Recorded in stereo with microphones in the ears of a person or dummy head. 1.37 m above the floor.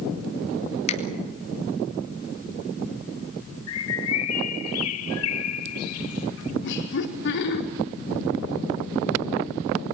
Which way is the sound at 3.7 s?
80° left.